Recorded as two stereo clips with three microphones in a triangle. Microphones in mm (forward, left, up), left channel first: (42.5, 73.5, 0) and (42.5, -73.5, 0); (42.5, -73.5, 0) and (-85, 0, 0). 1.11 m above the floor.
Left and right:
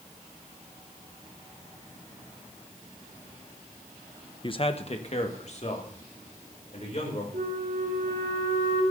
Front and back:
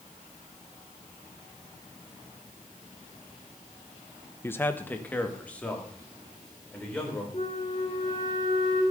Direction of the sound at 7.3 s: 85° right.